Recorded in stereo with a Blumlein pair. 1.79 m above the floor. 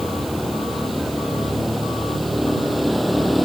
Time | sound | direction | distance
0.0 | a vehicle | straight ahead | ?